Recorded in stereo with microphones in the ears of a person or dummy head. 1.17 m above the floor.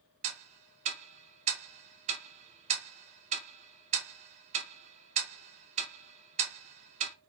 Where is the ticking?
35° right (ahead or behind), 0.5 m.